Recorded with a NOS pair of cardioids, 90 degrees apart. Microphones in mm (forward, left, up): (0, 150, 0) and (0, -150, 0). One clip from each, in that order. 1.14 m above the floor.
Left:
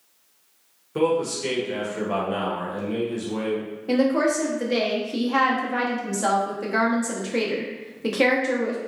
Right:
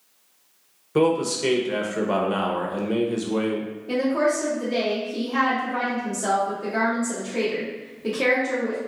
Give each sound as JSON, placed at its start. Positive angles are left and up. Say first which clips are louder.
{"t": 0.9, "sound": "a man speaking", "louder": "right 2 dB", "azimuth_deg": -25, "distance_m": 0.8}
{"t": 3.9, "sound": "a woman speaking", "louder": "left 1 dB", "azimuth_deg": 50, "distance_m": 1.1}